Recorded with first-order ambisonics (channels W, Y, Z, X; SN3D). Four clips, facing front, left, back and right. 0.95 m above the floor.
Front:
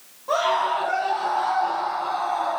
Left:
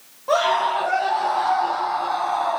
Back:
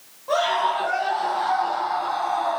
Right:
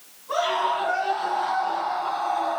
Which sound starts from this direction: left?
A scream, at 0.3 s.